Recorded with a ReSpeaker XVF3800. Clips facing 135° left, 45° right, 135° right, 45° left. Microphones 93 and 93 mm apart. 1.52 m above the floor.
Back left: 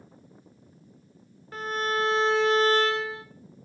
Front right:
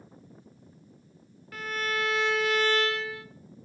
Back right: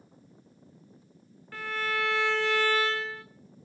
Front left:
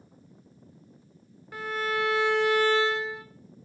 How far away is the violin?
About 0.9 m.